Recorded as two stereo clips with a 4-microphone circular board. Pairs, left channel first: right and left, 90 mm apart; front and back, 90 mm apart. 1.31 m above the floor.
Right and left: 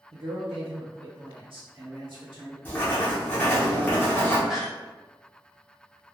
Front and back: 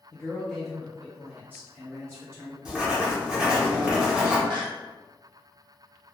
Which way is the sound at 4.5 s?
Straight behind.